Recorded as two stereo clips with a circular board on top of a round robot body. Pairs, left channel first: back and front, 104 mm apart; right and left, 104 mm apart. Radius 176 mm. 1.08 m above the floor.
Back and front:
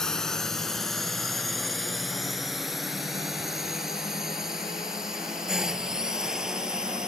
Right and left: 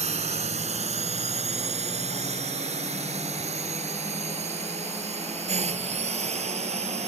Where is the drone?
95° left; by 7.1 s 85° left.